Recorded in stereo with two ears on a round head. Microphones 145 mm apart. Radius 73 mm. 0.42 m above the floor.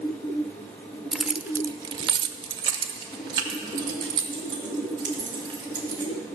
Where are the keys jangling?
Centre (ahead or behind), 0.6 m; by 6.1 s 25° right (ahead or behind), 4 m.